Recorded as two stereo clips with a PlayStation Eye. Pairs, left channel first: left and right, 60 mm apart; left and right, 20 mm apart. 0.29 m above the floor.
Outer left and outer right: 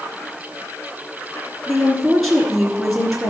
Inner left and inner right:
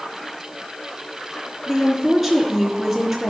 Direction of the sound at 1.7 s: Centre (ahead or behind).